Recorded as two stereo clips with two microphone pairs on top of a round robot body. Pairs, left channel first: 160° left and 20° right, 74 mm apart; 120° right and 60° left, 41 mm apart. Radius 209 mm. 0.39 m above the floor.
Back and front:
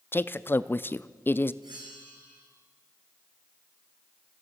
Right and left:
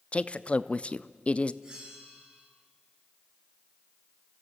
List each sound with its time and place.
0.1 s a man speaking: 165° right, 0.8 m
1.6 s a bell: 10° right, 5.5 m